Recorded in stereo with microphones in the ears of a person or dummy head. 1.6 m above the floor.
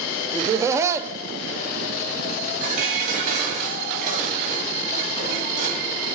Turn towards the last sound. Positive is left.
turn(degrees=-55)  # may be behind; listen again after turning